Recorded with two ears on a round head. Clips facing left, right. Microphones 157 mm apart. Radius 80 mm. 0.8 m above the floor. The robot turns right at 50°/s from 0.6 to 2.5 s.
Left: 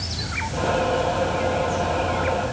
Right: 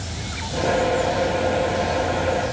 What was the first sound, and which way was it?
Only background noise.